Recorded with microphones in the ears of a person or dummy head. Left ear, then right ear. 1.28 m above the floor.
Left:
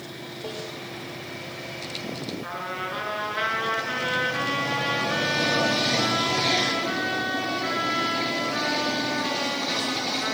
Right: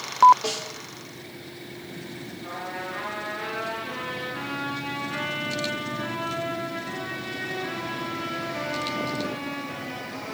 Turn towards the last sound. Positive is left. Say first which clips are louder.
# even
turn(degrees=60)  # may be behind; listen again after turning